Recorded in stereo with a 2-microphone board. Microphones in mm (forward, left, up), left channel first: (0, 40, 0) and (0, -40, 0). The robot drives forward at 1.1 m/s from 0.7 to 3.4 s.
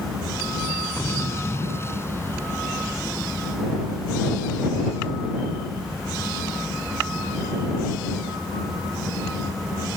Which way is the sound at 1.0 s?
35° left (ahead or behind).